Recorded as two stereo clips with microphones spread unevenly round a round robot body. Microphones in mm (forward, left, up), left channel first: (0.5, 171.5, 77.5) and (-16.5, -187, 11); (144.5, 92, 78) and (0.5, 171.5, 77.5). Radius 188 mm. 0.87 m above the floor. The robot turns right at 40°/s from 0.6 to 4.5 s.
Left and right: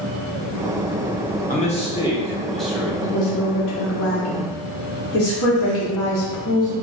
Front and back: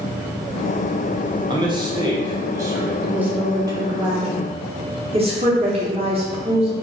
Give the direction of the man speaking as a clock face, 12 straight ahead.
7 o'clock.